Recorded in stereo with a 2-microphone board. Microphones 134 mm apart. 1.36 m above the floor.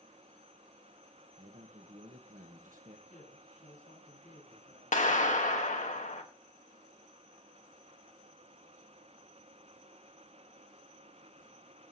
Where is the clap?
70° left (ahead or behind), 1.3 m.